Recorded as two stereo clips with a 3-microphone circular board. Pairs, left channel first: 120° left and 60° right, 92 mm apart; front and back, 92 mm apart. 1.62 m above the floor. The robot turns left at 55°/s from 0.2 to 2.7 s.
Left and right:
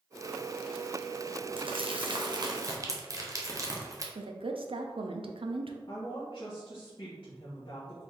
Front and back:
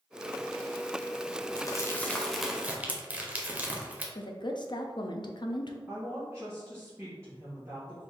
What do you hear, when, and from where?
1.6 s crumpling: 45° right, 0.7 m; by 4.0 s 105° right, 0.7 m
4.2 s a woman speaking: 40° right, 0.5 m
5.9 s a woman speaking: 120° left, 1.2 m